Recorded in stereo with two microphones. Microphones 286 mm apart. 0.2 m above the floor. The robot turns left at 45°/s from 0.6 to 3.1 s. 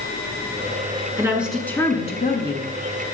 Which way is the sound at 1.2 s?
165° right.